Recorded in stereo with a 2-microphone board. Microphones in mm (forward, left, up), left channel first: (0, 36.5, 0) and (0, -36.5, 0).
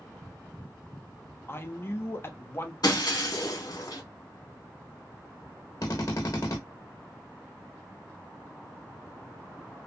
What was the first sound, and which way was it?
A man speaking, 30° left (ahead or behind).